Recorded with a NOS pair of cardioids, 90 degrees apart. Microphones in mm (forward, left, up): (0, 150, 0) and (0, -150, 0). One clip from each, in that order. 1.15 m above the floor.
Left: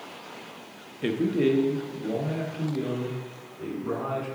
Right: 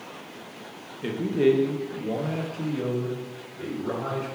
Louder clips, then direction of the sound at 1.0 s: Right 2 dB; 25° left.